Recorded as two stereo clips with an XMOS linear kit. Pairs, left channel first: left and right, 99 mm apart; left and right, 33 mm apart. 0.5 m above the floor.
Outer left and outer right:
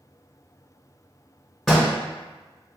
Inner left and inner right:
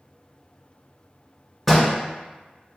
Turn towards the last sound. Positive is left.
turn(degrees=-5)  # may be behind; listen again after turning